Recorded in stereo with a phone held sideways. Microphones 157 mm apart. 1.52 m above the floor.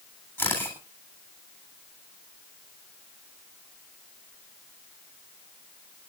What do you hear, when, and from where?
0.4 s a camera shutter: 10° left (ahead or behind), 8 m